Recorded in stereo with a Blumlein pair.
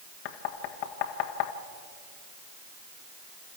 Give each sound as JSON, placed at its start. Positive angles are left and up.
{"t": 0.2, "sound": "knocking", "azimuth_deg": 45, "distance_m": 1.6}